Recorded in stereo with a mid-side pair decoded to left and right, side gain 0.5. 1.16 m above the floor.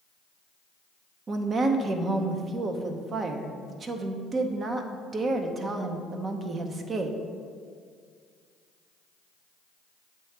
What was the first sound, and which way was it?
A woman speaking, 40° right.